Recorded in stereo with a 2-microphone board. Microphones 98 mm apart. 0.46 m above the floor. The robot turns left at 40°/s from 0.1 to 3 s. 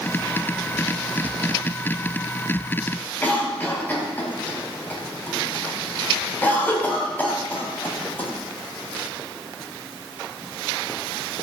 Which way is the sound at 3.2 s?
20° left (ahead or behind).